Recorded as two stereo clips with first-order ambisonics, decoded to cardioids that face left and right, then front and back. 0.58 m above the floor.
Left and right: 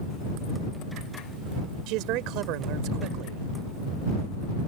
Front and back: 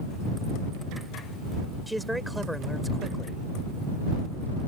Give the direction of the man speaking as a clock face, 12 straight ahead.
3 o'clock.